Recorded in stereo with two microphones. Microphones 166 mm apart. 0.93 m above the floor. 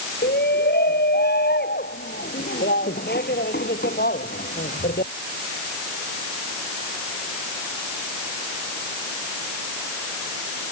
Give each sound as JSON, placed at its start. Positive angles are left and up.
{"t": 0.2, "sound": "a shout", "side_deg": 90}